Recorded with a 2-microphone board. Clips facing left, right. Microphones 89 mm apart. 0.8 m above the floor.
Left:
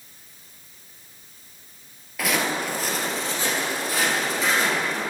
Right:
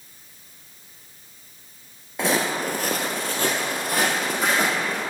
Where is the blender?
No blender in this recording.